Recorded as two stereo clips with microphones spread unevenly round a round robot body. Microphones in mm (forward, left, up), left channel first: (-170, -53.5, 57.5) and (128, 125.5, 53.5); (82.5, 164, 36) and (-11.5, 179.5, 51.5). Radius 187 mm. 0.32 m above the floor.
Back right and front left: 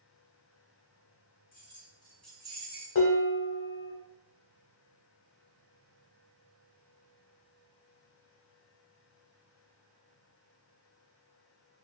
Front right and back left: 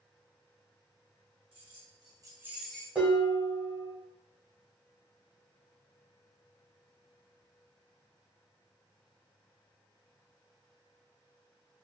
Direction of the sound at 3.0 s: 120° right.